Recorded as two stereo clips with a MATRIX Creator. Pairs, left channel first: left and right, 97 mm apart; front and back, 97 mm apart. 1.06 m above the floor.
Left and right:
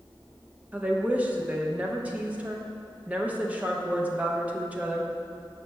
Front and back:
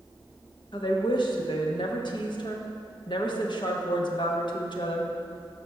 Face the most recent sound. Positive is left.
turn(degrees=-15)